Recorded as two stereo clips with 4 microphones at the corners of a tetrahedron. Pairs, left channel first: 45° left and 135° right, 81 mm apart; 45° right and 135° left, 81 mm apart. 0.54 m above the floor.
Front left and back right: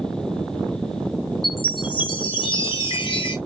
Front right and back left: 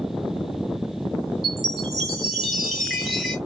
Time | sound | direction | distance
1.4 | a chime | 50° left | 2 m